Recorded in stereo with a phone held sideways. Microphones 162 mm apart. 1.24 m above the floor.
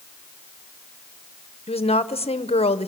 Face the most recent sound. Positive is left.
turn(degrees=40)  # may be behind; listen again after turning